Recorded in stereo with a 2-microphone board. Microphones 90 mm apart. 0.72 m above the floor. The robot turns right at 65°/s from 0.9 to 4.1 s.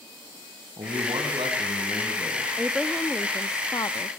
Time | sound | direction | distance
0.8 | a man speaking | 115° right | 5.5 m
2.6 | a woman speaking | 20° right | 0.7 m